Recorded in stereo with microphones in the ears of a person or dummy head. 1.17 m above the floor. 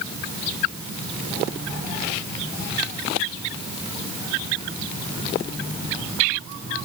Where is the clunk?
I don't hear a clunk.